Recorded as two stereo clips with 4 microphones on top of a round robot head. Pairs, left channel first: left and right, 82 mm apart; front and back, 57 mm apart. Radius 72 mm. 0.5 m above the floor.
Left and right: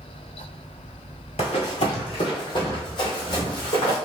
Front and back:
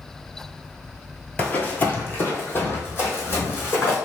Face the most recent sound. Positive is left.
turn(degrees=45)